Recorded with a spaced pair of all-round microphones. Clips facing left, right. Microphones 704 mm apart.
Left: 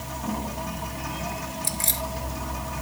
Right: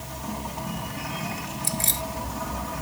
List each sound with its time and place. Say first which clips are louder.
1.6 s keys jangling: right 2 dB; 5° left (ahead or behind)